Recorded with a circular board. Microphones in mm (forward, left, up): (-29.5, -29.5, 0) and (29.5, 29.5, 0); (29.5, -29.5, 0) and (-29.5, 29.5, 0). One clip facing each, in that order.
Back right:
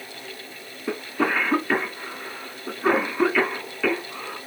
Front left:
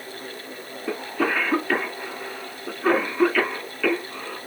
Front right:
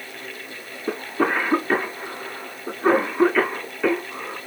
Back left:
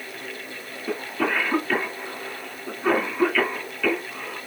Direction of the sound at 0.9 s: 65° right.